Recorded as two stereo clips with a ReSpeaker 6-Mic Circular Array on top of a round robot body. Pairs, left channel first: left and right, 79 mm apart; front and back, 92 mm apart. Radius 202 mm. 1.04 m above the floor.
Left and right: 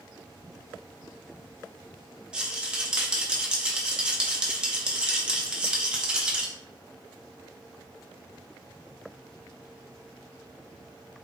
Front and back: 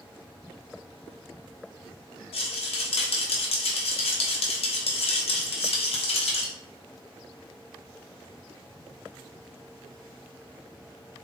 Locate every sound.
2.3 s a rattle: 10° right, 0.7 m